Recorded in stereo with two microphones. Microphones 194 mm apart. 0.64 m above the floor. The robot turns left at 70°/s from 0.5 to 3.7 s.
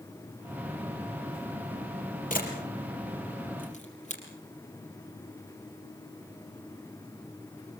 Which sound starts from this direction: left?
A camera shutter, at 2.3 s.